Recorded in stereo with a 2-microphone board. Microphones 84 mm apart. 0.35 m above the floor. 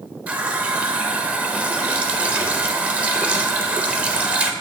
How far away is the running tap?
About 0.6 m.